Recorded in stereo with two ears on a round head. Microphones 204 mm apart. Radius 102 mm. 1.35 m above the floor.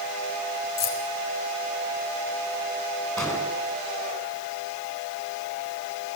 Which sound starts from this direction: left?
Keys jangling, at 0.8 s.